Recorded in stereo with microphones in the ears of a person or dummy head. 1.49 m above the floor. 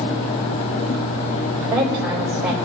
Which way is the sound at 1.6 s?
10° right (ahead or behind).